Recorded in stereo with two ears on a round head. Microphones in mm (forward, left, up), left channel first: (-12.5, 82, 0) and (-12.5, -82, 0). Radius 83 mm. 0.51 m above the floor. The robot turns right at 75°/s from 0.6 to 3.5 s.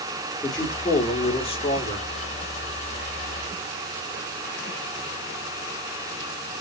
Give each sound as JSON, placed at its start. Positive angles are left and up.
{"t": 0.4, "sound": "a man speaking", "side_deg": 0, "distance_m": 0.7}